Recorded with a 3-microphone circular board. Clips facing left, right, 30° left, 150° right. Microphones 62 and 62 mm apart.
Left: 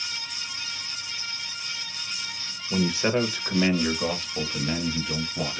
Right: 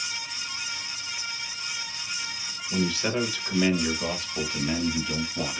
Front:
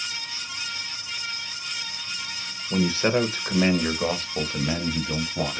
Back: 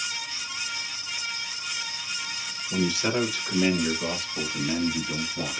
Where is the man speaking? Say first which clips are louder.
Left 3 dB, front 4 dB; 55° left, 1.0 m; by 5.6 s straight ahead, 1.9 m.